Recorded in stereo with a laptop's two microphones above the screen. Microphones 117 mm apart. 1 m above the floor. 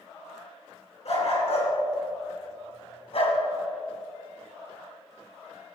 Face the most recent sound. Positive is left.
turn(degrees=55)  # may be behind; listen again after turning